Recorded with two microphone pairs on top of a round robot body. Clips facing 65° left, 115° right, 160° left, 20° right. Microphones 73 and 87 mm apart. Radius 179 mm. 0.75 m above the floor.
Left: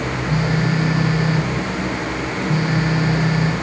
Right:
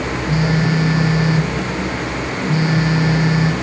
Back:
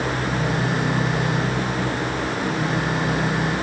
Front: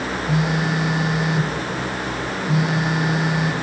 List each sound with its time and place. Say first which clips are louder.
0.3 s a phone buzzing: right 3 dB, front 1 dB; 35° right, 3.5 m